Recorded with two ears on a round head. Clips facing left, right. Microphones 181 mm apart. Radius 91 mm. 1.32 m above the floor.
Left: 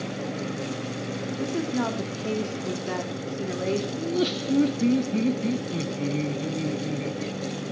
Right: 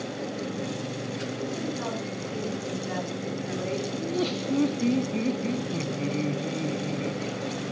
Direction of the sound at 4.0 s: 15° left (ahead or behind).